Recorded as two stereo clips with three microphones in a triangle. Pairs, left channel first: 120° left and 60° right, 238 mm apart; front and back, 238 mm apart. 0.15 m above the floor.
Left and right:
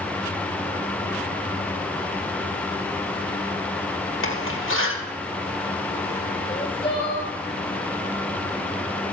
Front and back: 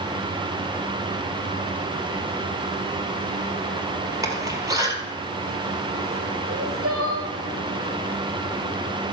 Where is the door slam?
105° left, 2 m.